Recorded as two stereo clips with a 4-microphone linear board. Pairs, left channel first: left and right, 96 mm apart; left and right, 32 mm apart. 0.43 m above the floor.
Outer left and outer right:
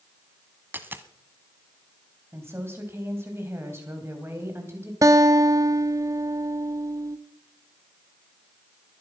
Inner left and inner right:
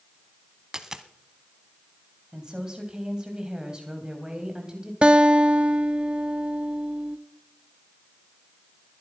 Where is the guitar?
35° right (ahead or behind), 0.6 m.